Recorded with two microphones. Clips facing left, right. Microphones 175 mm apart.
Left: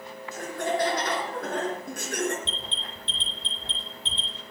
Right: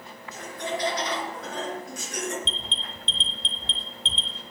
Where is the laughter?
50° left (ahead or behind), 3.5 m; by 2.4 s 60° left (ahead or behind), 3.5 m.